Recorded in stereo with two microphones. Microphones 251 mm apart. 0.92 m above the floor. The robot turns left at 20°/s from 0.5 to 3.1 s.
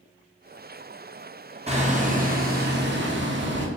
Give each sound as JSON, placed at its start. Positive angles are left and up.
{"t": 1.7, "sound": "hammering", "side_deg": -25, "distance_m": 0.6}